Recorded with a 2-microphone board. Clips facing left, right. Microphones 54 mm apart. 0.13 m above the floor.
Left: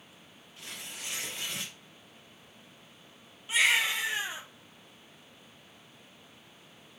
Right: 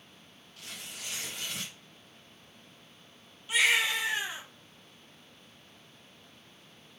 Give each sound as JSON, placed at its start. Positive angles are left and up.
{"t": 0.6, "sound": "tearing paper", "side_deg": 25, "distance_m": 3.0}
{"t": 3.5, "sound": "a baby crying", "side_deg": 25, "distance_m": 3.0}